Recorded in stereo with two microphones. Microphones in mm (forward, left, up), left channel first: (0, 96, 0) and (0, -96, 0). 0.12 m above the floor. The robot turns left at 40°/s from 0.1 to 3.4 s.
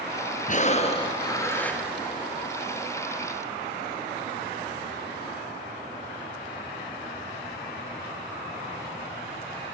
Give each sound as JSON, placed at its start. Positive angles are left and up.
{"t": 0.5, "sound": "breathing", "azimuth_deg": 60, "distance_m": 2.0}